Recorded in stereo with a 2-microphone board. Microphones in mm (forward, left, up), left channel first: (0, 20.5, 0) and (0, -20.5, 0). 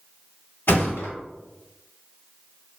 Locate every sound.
0.7 s a thud: 70° left (ahead or behind), 1.1 m